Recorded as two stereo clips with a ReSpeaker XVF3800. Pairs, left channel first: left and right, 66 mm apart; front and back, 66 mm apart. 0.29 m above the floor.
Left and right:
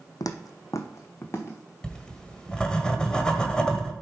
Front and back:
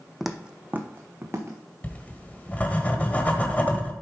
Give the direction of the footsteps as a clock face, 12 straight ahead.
9 o'clock.